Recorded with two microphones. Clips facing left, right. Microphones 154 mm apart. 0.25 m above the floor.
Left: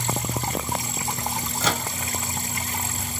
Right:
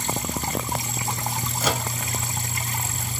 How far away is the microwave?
About 0.8 m.